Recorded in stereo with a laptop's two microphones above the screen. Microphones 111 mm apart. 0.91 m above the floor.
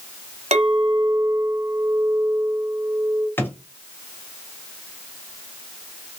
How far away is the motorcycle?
No motorcycle in this recording.